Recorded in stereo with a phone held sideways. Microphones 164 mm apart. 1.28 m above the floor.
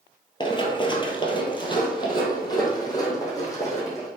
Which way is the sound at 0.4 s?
30° left (ahead or behind).